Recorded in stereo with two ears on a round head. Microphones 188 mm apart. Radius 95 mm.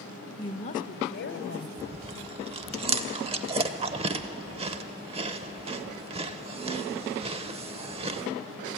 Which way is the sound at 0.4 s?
15° left (ahead or behind).